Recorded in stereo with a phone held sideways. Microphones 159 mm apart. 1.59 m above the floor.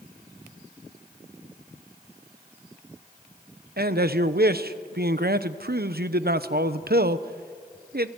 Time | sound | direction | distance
3.8 | a man speaking | 80° right | 0.9 m